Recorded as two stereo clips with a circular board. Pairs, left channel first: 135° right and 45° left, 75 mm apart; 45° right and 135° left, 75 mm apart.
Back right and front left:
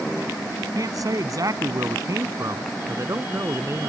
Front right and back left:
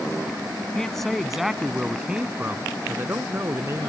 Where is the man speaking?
35° left; by 3.9 s 95° left.